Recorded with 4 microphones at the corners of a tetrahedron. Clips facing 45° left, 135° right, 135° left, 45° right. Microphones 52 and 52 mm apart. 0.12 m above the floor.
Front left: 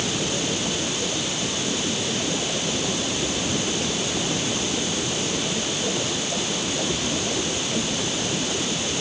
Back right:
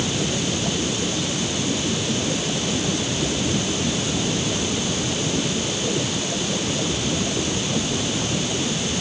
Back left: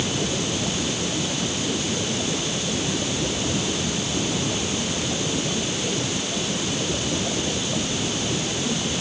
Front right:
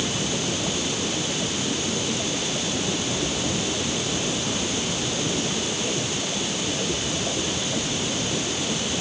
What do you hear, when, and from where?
Only background noise.